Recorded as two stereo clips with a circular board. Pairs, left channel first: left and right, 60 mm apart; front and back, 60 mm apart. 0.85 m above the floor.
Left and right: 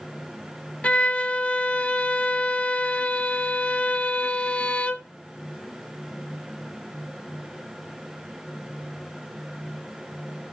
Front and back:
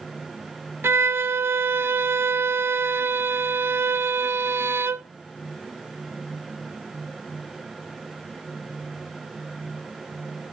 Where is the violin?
150° left, 0.6 m.